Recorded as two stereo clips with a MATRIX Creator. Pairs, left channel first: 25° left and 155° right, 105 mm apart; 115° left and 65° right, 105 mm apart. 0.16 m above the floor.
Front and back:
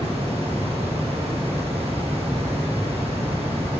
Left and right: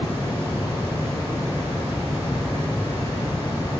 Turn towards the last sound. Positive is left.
turn(degrees=-140)